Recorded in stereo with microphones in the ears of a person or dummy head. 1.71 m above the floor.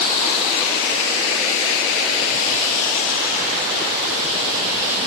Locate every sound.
Only background noise.